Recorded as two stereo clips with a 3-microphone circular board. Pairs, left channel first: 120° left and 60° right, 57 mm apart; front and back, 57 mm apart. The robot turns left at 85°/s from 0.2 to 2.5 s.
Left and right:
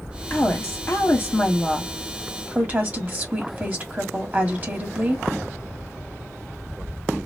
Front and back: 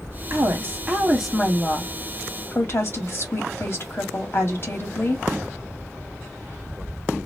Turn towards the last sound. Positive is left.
turn(degrees=-15)